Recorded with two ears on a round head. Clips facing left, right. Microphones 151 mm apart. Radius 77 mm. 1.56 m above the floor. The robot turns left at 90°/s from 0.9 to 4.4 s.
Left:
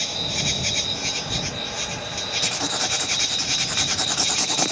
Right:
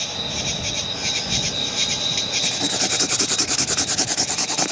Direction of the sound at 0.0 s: 15° left.